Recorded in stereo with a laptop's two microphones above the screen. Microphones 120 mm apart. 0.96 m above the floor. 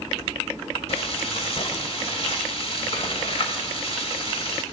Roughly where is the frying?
Left.